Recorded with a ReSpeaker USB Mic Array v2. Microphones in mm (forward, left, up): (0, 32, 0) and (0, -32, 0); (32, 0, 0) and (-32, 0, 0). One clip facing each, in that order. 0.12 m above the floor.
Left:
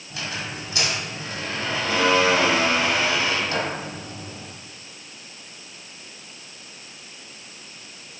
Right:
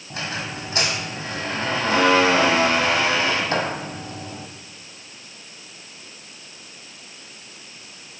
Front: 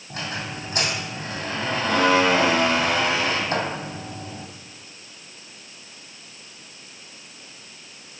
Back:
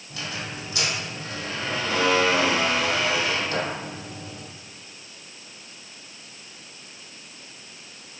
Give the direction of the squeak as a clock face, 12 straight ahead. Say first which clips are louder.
Right 2 dB, front 3 dB; 2 o'clock.